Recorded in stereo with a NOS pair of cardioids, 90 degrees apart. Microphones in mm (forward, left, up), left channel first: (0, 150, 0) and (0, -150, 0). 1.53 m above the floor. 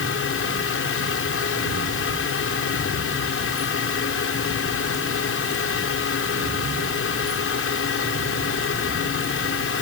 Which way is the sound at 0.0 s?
45° left.